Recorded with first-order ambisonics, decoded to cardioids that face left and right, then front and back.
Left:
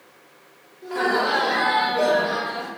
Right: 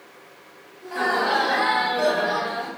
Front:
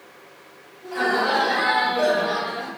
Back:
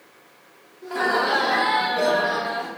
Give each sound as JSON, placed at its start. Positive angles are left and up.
{"t": 0.8, "sound": "laughter", "azimuth_deg": 175, "distance_m": 1.3}